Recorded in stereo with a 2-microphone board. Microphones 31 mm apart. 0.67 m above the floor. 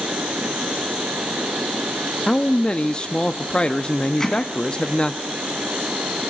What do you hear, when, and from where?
2.3 s a man speaking: 30° left (ahead or behind), 0.6 m
4.2 s hammering: 15° left (ahead or behind), 3.5 m